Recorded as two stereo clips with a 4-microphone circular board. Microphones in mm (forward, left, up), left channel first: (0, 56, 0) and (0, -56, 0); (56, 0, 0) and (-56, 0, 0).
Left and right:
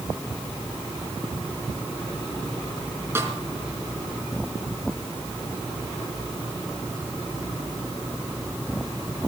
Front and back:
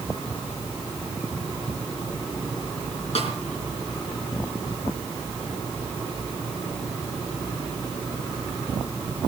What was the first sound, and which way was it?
A snare drum, 20° right.